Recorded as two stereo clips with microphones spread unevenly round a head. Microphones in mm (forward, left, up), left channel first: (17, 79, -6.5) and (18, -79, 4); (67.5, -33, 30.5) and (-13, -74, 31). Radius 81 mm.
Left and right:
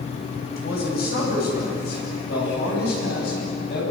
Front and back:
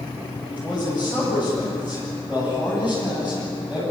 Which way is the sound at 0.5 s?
125° left.